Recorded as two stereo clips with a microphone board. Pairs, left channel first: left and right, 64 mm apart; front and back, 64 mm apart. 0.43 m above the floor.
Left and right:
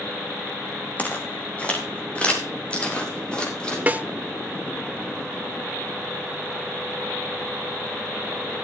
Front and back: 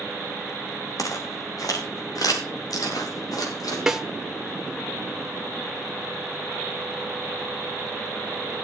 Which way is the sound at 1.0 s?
25° left.